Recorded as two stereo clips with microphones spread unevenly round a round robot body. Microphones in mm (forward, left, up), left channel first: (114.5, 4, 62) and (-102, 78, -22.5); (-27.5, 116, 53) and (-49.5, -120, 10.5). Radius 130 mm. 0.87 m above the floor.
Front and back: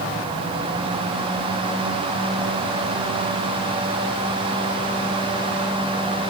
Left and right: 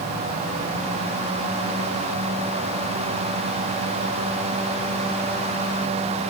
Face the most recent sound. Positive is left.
No sound to turn to.